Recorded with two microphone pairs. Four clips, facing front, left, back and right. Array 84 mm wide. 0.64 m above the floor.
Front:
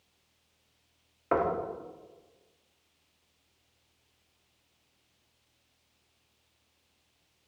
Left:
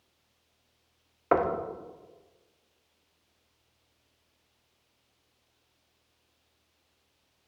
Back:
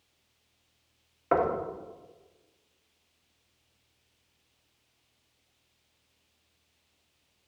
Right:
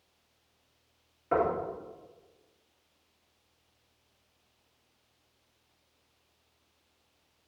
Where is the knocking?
100° left, 0.8 m.